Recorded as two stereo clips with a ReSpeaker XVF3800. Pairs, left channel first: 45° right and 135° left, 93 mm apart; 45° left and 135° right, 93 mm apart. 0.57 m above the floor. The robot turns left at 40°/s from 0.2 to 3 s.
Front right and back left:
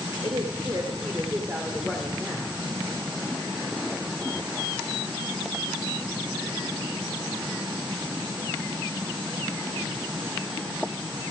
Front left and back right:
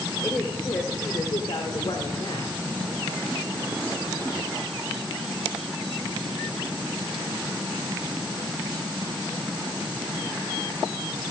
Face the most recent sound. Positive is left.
turn(degrees=5)